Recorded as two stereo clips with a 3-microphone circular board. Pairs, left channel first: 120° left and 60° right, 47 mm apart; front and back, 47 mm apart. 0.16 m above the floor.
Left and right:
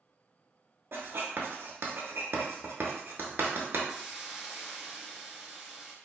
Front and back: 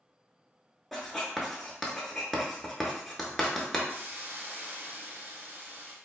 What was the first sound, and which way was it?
Writing, 85° right.